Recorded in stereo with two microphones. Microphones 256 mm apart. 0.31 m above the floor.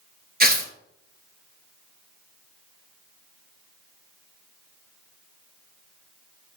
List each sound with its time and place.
0.4 s tearing paper: 35° right (ahead or behind), 1.5 m